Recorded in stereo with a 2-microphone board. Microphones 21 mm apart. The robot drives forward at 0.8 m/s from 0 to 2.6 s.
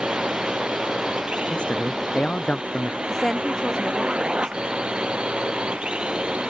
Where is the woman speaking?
25° left (ahead or behind).